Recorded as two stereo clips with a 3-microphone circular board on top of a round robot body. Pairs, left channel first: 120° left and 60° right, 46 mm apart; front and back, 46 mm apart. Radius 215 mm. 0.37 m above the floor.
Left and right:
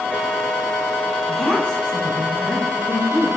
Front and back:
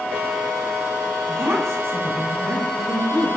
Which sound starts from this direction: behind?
A woman speaking, at 1.3 s.